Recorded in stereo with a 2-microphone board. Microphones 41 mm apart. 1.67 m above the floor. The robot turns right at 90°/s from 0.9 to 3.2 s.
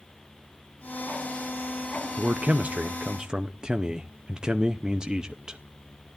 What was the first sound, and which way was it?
A man speaking, 125° right.